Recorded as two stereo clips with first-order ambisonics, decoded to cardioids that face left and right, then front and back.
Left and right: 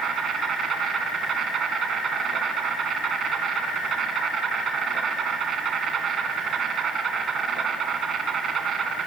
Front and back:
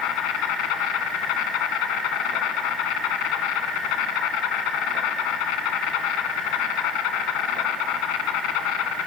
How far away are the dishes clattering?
I don't hear dishes clattering.